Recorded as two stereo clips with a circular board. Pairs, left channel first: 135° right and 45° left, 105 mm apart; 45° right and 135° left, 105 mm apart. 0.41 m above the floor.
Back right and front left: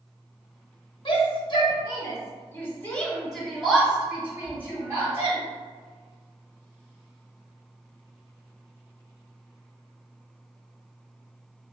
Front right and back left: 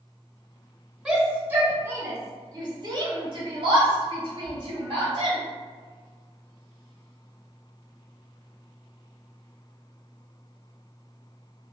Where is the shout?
145° right, 1.4 m; by 5.4 s 105° left, 2.0 m.